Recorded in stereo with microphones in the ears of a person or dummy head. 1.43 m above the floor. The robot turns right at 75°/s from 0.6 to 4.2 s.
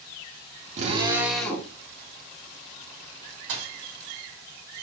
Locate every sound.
0.8 s a drill: 45° right, 1.0 m; by 1.7 s 25° left, 1.0 m
3.5 s a thud: 60° right (ahead or behind), 1.9 m; by 3.7 s 50° right (ahead or behind), 1.9 m